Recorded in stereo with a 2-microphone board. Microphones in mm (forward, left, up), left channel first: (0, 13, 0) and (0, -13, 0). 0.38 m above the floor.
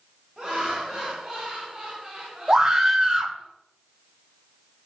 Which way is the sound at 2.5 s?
20° right (ahead or behind).